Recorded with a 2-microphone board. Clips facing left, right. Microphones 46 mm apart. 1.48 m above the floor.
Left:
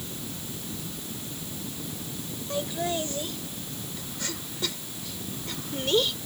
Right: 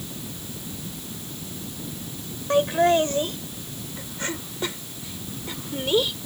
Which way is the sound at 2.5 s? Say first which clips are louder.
Right 11 dB; 55° right (ahead or behind).